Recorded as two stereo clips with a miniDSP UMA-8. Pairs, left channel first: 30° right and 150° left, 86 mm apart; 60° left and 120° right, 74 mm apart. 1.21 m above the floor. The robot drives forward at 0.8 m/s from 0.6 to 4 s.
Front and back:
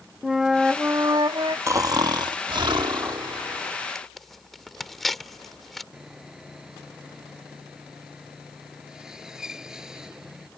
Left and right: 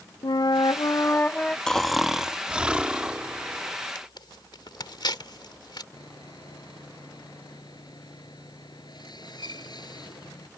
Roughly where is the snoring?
Behind left.